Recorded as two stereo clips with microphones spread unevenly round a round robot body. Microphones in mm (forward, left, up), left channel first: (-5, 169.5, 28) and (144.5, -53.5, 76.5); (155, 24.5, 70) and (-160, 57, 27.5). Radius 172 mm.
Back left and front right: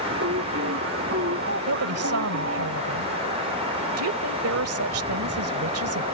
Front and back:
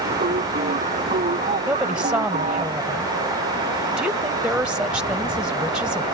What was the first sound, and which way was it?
Singing, 115° right.